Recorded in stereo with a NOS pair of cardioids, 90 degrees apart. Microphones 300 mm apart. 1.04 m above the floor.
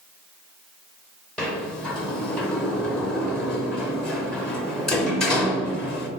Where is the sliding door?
Straight ahead, 0.6 m.